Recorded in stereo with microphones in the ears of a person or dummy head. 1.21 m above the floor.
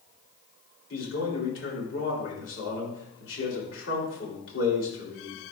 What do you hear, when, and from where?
0.9 s a man speaking: 80° left, 2.5 m